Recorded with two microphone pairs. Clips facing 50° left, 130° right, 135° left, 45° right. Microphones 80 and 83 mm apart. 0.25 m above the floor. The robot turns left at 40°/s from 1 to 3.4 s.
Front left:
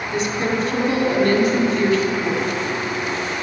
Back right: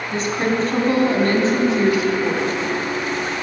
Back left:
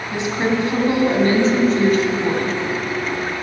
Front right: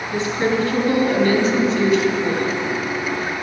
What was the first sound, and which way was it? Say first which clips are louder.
A woman speaking: back right 1 dB, even; 165° right.